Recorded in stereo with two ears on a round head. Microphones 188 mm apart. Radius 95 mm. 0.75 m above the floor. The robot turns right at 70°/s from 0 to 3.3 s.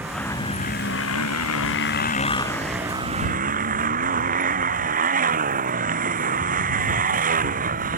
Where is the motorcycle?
10° right; by 8.0 s 140° right.